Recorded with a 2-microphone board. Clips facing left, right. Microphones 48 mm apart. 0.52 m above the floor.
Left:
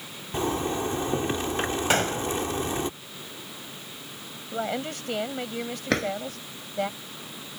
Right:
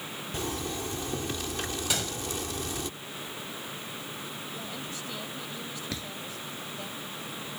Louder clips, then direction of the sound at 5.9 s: Left 17 dB; 60° left (ahead or behind).